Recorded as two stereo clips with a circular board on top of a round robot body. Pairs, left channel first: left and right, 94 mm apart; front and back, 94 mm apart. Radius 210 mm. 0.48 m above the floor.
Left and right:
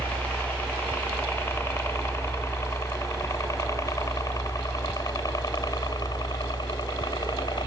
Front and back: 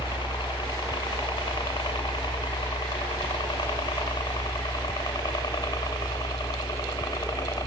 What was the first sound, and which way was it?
A helicopter, 20° left.